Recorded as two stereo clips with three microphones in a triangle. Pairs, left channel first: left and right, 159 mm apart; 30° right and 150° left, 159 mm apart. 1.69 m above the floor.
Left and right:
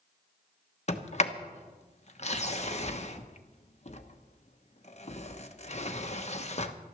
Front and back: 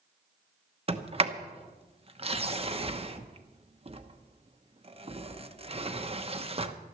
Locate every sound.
0.9 s a sliding door: 115° left, 1.0 m